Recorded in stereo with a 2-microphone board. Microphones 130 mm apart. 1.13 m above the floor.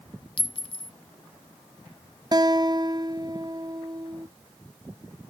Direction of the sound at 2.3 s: 35° right (ahead or behind).